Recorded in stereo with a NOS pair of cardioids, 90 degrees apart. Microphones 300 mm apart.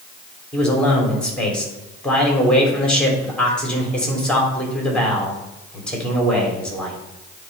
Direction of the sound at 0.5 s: 5° left.